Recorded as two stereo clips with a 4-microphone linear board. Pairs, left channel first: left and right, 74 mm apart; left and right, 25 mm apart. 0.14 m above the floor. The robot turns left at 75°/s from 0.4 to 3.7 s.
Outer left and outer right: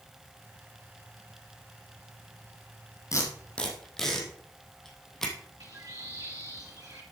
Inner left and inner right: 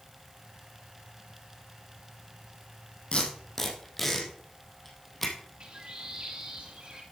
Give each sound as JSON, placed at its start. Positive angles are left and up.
{"t": 3.1, "sound": "tape being pulled", "side_deg": 50, "distance_m": 3.0}
{"t": 5.6, "sound": "a bird", "side_deg": -55, "distance_m": 3.5}